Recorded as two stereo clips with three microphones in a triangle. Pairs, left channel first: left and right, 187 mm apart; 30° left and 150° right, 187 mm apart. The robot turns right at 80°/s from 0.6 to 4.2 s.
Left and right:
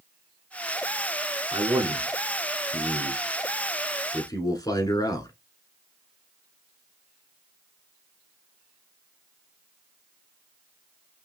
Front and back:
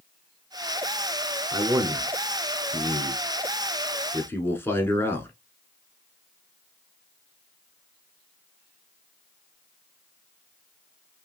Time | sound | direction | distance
1.5 | a man speaking | 135° right | 1.1 m